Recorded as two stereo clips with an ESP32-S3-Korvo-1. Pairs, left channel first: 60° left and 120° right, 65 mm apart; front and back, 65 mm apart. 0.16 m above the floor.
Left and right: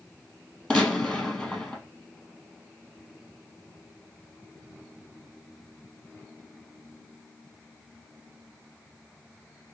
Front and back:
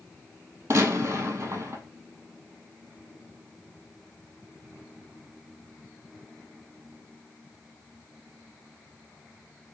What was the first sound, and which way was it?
A gunshot, 135° left.